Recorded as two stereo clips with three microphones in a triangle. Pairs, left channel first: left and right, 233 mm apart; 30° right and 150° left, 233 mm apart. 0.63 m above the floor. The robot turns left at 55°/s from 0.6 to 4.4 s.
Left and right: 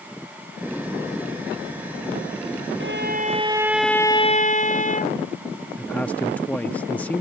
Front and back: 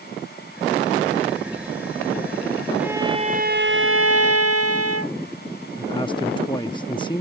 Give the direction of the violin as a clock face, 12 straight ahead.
4 o'clock.